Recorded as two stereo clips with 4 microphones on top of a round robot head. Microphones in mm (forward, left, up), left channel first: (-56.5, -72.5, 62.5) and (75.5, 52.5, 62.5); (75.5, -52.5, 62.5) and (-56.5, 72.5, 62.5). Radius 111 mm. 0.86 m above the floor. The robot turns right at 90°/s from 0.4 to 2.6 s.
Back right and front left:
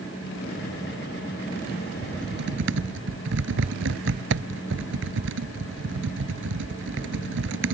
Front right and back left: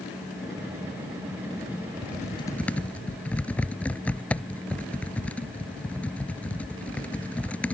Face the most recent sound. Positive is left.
turn(degrees=40)